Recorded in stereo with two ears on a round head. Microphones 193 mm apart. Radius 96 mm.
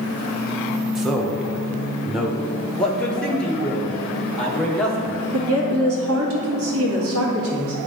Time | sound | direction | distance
0.9 | a man speaking | centre (ahead or behind) | 1.0 m
2.8 | a man speaking | 5° left (ahead or behind) | 1.0 m
5.3 | a woman speaking | 75° right (ahead or behind) | 1.7 m